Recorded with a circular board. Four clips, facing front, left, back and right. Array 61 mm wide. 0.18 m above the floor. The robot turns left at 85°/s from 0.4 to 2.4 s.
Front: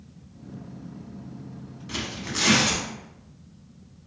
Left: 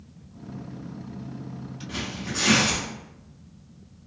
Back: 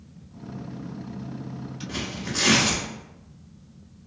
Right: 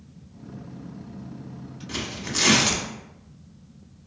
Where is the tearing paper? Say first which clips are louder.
Right 1 dB, even; 40° right, 0.6 m; by 2.8 s 85° right, 0.6 m.